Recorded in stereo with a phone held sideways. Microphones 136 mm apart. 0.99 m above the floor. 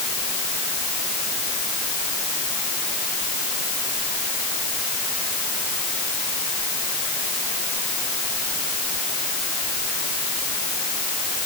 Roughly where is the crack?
I don't hear a crack.